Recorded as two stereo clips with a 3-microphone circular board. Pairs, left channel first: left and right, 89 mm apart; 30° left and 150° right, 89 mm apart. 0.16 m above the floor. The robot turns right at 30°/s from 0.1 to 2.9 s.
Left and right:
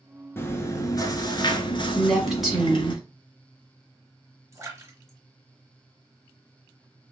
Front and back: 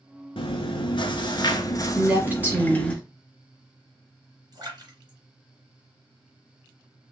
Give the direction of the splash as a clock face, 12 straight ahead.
4 o'clock.